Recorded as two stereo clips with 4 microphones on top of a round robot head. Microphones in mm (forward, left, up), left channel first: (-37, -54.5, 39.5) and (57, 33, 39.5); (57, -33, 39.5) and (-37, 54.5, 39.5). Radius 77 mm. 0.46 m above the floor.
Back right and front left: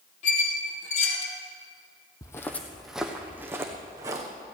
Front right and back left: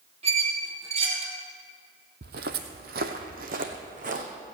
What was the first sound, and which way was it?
A squeak, 175° right.